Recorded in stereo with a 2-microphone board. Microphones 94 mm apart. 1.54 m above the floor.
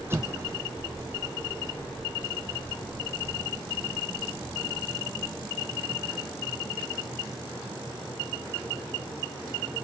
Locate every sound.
0.1 s an explosion: 25° right (ahead or behind)